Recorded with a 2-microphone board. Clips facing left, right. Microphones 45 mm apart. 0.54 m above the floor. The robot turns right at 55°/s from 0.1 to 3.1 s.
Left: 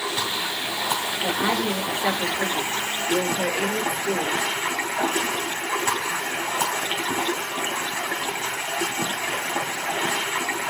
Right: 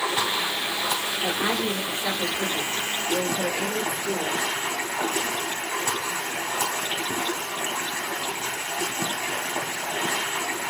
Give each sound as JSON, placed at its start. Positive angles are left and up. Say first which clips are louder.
{"t": 0.0, "sound": "running water", "louder": "right 2 dB", "azimuth_deg": -35, "distance_m": 2.5}
{"t": 1.2, "sound": "a woman speaking", "louder": "left 2 dB", "azimuth_deg": -15, "distance_m": 2.0}